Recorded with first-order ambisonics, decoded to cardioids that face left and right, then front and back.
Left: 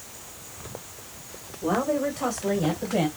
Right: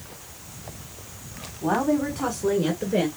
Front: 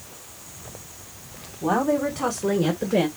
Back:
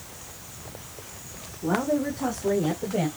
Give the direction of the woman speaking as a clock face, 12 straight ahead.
1 o'clock.